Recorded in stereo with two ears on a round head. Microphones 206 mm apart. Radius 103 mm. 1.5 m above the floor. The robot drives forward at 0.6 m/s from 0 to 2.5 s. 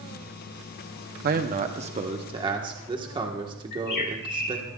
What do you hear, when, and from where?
1.2 s a man speaking: 45° right (ahead or behind), 0.7 m; by 4.7 s 20° right (ahead or behind), 1.3 m
3.7 s a bird: 45° left (ahead or behind), 2.5 m